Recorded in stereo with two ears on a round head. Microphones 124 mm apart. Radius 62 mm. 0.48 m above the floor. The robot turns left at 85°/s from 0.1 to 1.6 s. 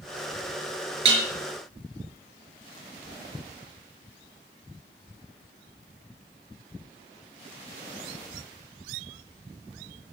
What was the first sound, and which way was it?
Dishes clattering, 45° right (ahead or behind).